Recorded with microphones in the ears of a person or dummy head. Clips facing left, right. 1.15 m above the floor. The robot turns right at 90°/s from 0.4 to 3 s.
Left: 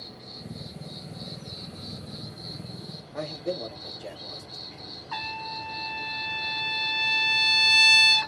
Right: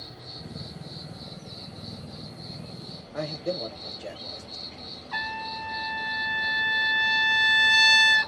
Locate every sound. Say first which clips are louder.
0.0 s an insect: even; 15° right (ahead or behind), 1.1 m; by 8.3 s 10° right (ahead or behind), 1.1 m
3.1 s a man speaking: right 1 dB; 5° right (ahead or behind), 0.5 m
5.1 s a trumpet: right 1 dB; 55° left (ahead or behind), 1.3 m